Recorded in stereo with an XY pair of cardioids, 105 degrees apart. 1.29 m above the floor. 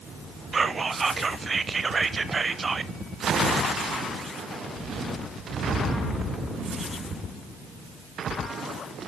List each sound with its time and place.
0.5 s whispering: 30° right, 0.5 m